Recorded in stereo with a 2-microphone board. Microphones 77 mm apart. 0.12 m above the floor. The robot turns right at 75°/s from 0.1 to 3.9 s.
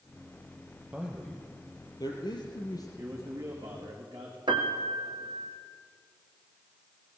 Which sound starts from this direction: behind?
A man speaking, at 3.0 s.